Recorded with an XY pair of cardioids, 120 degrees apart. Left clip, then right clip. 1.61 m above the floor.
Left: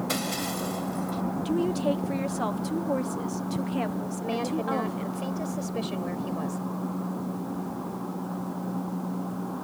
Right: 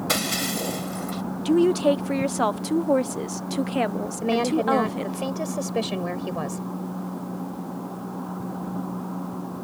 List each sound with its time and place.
0.1 s breaking glass: 40° right
1.4 s a woman speaking: 40° right
4.2 s a woman speaking: 40° right